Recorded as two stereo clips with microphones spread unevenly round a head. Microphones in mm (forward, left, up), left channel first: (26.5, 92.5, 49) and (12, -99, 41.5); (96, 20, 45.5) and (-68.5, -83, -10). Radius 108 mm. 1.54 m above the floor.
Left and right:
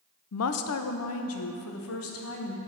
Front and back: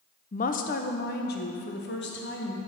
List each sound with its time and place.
0.3 s a woman speaking: 80° left, 0.5 m; by 2.6 s 75° left, 1.7 m